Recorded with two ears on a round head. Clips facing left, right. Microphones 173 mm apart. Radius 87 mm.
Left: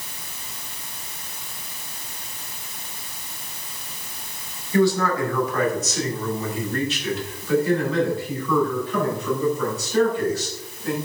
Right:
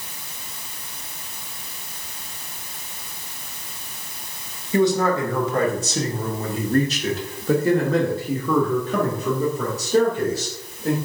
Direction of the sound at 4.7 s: 20° right (ahead or behind).